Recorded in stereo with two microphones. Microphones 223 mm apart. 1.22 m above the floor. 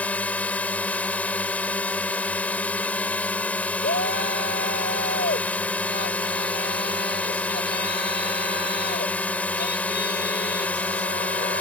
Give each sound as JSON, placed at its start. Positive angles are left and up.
{"t": 0.0, "sound": "a drone", "side_deg": 5}
{"t": 3.8, "sound": "a shout", "side_deg": 50}